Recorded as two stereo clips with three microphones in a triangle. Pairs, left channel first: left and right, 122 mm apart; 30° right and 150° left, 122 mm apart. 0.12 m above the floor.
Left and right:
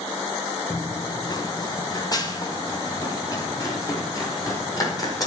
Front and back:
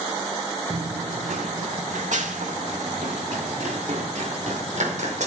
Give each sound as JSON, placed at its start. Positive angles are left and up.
{"t": 0.7, "sound": "running footsteps", "azimuth_deg": 140, "distance_m": 0.7}